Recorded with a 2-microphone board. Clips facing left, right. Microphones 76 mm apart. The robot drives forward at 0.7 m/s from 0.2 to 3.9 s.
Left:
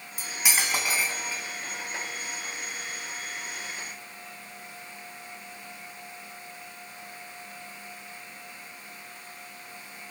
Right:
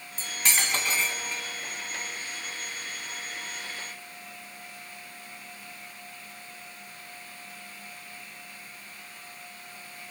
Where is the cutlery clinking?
10° left (ahead or behind), 1.8 m.